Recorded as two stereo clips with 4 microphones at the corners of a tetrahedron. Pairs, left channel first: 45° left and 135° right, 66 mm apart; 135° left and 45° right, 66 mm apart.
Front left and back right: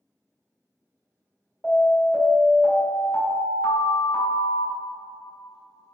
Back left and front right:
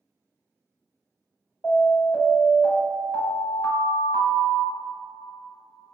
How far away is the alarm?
About 1.5 m.